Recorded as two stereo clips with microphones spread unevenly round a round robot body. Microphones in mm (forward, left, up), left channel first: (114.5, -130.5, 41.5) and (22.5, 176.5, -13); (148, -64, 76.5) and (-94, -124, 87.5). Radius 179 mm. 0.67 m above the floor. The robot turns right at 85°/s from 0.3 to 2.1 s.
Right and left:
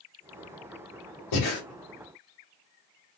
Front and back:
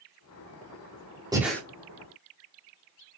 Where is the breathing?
90° right, 1.9 m; by 1.6 s 65° right, 1.9 m.